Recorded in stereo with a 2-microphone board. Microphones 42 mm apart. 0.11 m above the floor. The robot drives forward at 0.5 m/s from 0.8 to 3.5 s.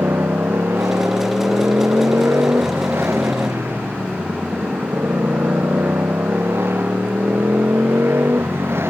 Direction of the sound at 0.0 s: 80° right.